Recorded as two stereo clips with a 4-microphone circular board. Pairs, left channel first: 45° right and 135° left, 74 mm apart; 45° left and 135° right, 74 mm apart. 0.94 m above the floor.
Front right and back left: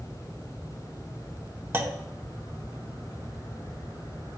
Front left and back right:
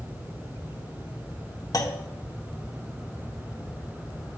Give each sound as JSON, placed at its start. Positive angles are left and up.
{"t": 1.7, "sound": "a clunk", "azimuth_deg": 80, "distance_m": 0.8}